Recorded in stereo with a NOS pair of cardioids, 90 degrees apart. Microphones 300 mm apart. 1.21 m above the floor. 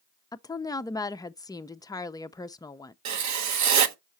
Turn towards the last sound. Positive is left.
turn(degrees=-65)